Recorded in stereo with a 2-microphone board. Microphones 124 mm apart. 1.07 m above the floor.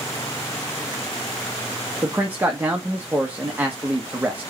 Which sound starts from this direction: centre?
A man speaking, at 2.0 s.